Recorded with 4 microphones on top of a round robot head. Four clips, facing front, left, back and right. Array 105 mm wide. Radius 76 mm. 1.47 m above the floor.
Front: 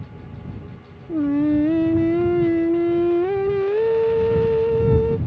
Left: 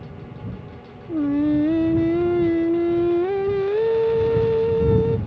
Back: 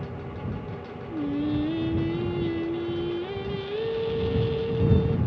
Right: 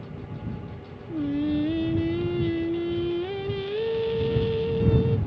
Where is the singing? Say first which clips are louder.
Left 6 dB, front 9 dB; 40° left.